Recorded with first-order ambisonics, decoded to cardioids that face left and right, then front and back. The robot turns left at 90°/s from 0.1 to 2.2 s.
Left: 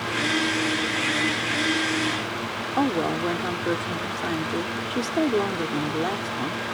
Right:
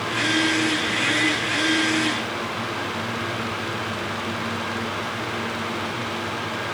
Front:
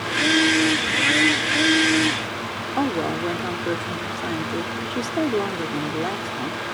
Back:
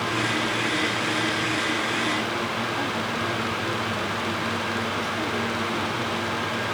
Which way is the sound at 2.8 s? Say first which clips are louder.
Left 3 dB, front 3 dB; 55° left.